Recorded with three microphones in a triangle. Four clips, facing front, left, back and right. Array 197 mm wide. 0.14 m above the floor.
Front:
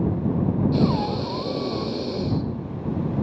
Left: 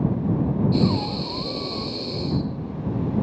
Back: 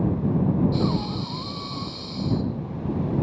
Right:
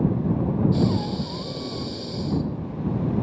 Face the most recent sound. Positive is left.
turn(degrees=10)